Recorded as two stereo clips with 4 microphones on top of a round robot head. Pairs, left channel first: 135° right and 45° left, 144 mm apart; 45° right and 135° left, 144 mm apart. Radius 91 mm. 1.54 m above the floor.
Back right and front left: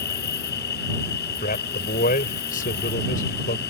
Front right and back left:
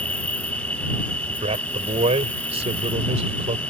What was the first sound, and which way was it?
An insect, 125° right.